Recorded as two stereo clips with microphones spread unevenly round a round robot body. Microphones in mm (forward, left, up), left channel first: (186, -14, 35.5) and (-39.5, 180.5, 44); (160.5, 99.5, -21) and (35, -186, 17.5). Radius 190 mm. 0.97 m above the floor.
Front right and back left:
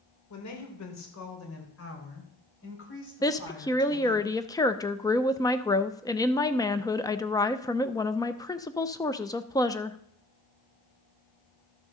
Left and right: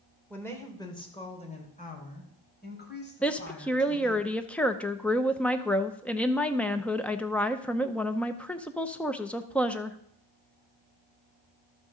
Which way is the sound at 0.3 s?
20° right.